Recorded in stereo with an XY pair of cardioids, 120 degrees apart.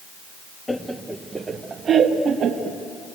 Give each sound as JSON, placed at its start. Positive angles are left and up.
{"t": 0.7, "sound": "laughter", "azimuth_deg": 10, "distance_m": 0.8}